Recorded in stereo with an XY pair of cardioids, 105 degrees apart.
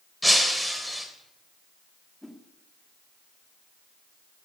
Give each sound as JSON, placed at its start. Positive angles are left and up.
{"t": 0.2, "sound": "breaking glass", "azimuth_deg": 0, "distance_m": 3.0}
{"t": 2.2, "sound": "a whoosh", "azimuth_deg": 5, "distance_m": 2.5}